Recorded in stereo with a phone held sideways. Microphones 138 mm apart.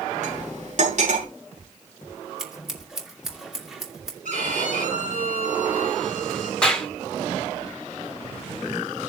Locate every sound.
0.2 s cutlery clinking: 60° right (ahead or behind), 7.5 m
2.4 s scissors: 5° right (ahead or behind), 2.5 m
4.2 s a violin: 65° right (ahead or behind), 8 m
6.6 s a clap: 5° left (ahead or behind), 2.5 m